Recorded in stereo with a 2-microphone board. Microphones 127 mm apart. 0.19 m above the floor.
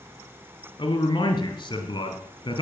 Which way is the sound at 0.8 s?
35° left (ahead or behind).